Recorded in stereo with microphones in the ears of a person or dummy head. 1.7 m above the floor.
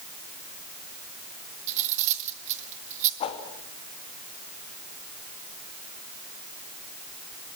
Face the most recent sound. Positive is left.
turn(degrees=30)  # may be behind; listen again after turning